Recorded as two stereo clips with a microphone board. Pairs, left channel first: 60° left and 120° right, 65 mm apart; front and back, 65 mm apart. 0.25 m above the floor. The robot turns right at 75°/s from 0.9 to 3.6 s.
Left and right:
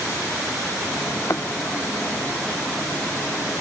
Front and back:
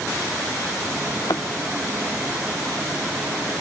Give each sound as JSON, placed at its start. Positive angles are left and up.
{"t": 1.2, "sound": "a thud", "azimuth_deg": 5}